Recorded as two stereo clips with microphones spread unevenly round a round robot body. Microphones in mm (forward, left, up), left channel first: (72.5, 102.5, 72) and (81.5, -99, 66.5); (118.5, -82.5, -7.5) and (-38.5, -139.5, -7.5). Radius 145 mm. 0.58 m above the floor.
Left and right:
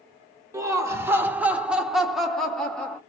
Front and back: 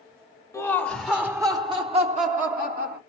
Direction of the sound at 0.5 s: 30° right.